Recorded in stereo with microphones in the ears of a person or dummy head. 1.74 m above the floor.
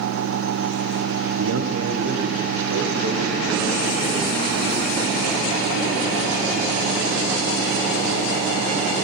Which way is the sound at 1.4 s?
75° right (ahead or behind).